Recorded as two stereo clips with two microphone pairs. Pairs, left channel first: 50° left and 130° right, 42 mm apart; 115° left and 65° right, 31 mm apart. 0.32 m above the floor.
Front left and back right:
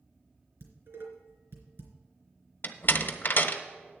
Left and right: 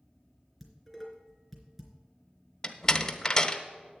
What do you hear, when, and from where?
0.6 s dishes clattering: 150° right, 3 m
2.6 s a door slam: 50° left, 1.0 m